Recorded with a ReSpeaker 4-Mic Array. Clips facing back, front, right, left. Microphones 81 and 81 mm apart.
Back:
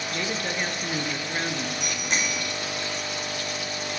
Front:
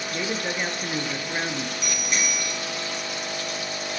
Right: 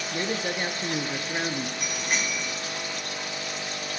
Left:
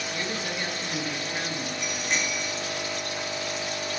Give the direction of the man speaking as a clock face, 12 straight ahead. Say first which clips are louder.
Front 2 dB, right 5 dB; 2 o'clock.